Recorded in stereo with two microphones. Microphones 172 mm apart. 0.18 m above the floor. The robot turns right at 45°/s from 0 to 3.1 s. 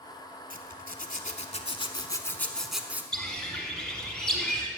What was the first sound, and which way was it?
A zipper, 80° left.